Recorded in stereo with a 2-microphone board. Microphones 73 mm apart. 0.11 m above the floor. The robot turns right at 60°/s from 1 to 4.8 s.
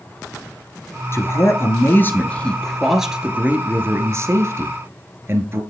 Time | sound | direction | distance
1.1 | a man speaking | 75° left | 1.3 m